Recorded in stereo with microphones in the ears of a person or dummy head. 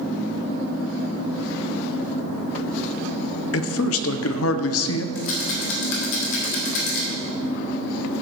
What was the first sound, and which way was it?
A man speaking, 65° left (ahead or behind).